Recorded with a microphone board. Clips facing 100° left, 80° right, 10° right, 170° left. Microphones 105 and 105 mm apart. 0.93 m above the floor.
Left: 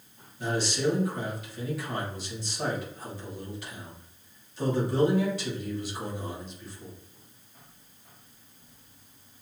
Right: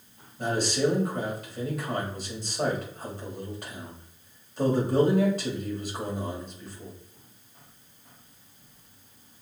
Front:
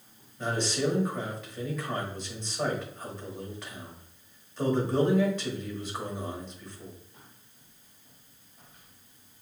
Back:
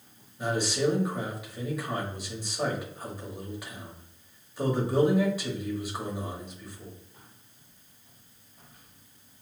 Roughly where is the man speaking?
Right.